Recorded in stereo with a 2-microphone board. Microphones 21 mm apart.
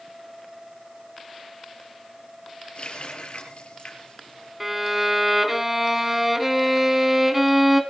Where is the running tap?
70° left (ahead or behind), 6 m.